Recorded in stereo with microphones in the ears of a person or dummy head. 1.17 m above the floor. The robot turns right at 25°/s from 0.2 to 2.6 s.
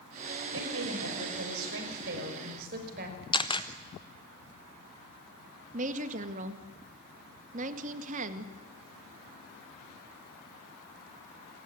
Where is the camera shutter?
25° left (ahead or behind), 0.9 m.